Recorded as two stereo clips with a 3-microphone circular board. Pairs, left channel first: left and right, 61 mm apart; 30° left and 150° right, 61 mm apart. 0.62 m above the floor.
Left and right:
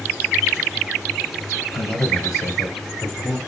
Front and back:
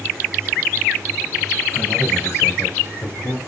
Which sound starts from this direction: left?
A man speaking, at 1.7 s.